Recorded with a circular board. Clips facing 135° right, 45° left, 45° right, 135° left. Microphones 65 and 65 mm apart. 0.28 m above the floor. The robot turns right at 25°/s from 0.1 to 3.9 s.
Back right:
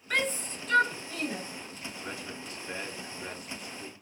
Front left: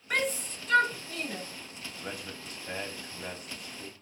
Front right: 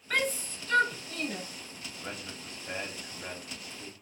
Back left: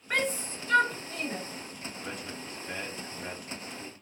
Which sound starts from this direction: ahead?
A man speaking, at 2.0 s.